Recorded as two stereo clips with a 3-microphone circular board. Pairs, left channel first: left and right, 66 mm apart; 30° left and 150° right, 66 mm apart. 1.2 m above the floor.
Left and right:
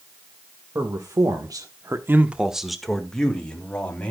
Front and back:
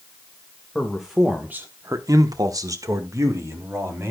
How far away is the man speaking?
About 2 m.